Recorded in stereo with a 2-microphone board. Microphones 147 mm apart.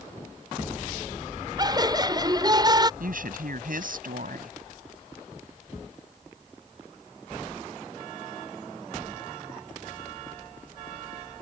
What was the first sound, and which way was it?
Laughter, 30° right (ahead or behind).